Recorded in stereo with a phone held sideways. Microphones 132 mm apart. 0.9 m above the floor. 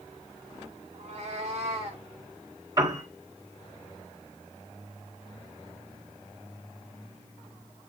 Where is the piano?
30° right (ahead or behind), 4 m.